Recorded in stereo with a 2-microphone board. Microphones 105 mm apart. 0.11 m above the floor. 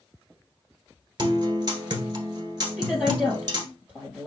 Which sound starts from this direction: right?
A guitar, at 1.2 s.